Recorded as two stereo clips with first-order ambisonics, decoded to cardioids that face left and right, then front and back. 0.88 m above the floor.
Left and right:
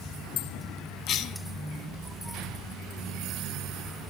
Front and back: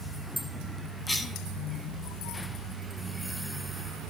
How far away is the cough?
About 0.8 m.